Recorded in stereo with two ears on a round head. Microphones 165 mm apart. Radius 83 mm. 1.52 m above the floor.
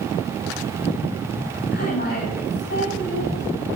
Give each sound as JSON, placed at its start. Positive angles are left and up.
{"t": 1.7, "sound": "a woman speaking", "side_deg": 50, "distance_m": 10.0}